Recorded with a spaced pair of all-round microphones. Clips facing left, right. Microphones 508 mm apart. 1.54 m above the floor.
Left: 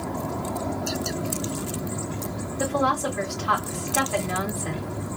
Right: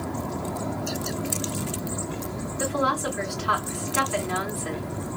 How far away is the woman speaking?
About 2.5 m.